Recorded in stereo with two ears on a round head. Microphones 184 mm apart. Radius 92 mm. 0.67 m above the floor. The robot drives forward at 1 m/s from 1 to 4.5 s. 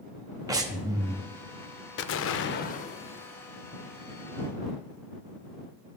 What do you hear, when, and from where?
0.5 s breathing: 20° right (ahead or behind), 0.8 m; by 1.2 s 15° right (ahead or behind), 0.9 m
2.0 s an explosion: 55° left (ahead or behind), 0.5 m; by 3.5 s 20° left (ahead or behind), 1.3 m